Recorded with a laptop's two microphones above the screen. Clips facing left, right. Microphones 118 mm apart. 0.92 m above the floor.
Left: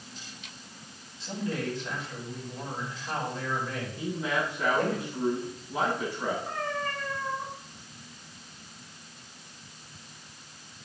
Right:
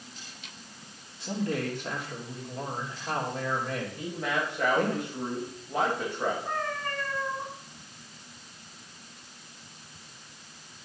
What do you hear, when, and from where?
1.2 s a man speaking: 60° right (ahead or behind), 3 m
4.0 s a man speaking: 65° right (ahead or behind), 4.5 m
6.5 s a cat meowing: 55° right (ahead or behind), 4 m